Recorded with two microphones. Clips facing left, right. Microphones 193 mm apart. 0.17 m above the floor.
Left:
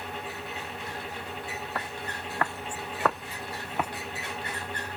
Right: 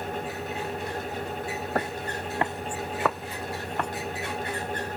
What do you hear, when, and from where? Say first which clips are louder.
1.8 s footsteps: right 7 dB; 45° right (ahead or behind); by 3.9 s 5° left (ahead or behind)